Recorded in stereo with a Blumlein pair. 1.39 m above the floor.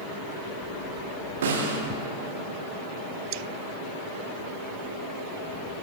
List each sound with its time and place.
1.4 s a snare drum: 60° right, 1.6 m